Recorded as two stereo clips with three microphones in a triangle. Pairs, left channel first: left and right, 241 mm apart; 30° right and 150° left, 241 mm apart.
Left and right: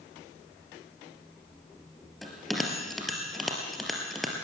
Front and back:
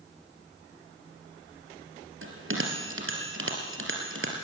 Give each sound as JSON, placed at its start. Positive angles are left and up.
{"t": 2.2, "sound": "a bell", "azimuth_deg": 180, "distance_m": 3.5}